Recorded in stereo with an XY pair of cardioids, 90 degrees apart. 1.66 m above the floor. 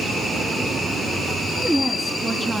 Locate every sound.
1.6 s a woman speaking: straight ahead, 3.5 m